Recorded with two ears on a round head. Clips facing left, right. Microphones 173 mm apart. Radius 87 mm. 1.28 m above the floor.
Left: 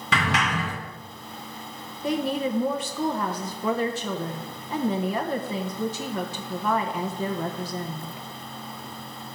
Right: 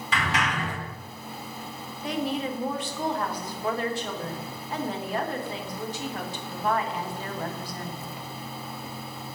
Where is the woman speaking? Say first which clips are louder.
Left 3 dB; 80° left, 0.9 m.